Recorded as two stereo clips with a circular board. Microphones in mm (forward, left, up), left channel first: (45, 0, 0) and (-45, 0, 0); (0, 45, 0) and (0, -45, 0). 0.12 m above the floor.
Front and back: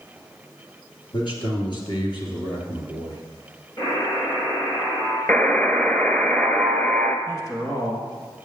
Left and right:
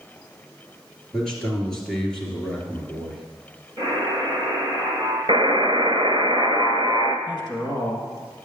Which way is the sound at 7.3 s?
55° left.